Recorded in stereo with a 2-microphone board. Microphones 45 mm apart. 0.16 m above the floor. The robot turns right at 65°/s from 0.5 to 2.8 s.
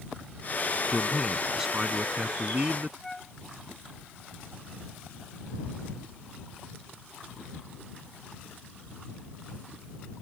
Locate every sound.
0.9 s a man speaking: 150° left; by 2.9 s 85° right
3.0 s a flute: 10° left (ahead or behind)